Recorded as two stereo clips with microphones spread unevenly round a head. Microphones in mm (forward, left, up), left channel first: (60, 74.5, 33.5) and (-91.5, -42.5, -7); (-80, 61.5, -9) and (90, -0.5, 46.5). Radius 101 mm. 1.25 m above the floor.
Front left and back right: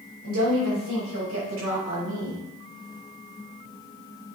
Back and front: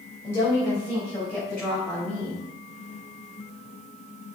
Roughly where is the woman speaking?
Behind right.